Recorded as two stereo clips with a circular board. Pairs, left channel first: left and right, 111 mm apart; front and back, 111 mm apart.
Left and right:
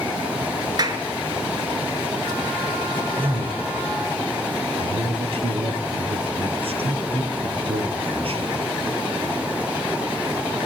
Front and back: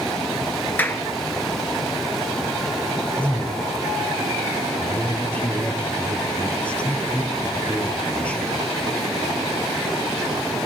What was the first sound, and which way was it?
A clap, 65° right.